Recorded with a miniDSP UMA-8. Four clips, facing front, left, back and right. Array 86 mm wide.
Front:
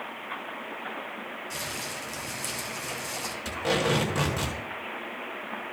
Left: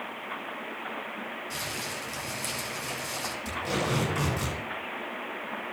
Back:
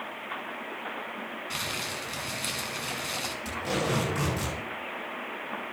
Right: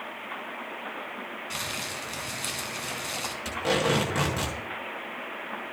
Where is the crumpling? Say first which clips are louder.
Even, back 1 dB; 145° right, 2 m.